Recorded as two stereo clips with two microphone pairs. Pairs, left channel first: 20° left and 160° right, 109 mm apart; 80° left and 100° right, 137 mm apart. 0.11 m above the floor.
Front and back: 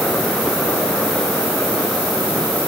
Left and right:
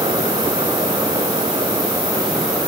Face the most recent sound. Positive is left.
No sound to turn to.